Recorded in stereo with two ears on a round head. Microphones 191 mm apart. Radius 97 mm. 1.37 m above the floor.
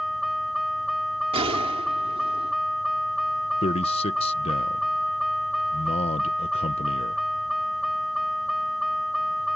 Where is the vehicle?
Centre (ahead or behind).